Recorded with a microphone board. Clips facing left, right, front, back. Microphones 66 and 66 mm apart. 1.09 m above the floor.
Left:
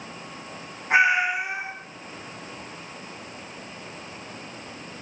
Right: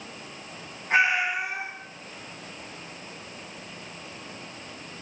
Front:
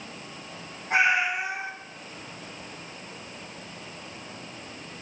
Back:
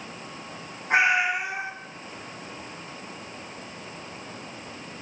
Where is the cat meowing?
160° left, 1.6 m.